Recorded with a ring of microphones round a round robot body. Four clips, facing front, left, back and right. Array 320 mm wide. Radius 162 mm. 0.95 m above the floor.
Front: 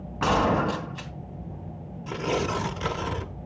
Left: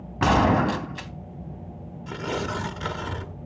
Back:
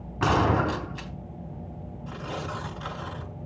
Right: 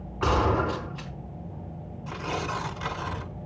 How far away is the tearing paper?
About 1.3 m.